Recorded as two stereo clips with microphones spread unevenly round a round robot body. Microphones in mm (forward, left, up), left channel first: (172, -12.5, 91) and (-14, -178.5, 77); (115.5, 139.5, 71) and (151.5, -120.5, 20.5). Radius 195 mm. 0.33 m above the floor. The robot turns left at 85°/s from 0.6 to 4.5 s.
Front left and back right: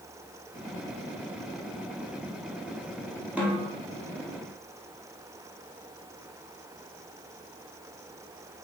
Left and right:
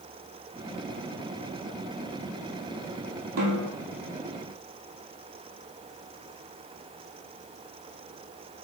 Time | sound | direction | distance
3.4 | a snare drum | 55° right | 2 m